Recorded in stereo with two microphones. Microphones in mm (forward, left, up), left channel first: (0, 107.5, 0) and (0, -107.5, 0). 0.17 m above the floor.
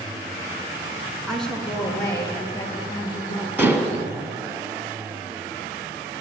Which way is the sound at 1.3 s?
Centre (ahead or behind).